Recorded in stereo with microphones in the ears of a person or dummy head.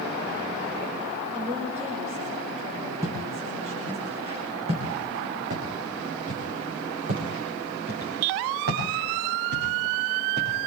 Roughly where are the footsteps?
Centre.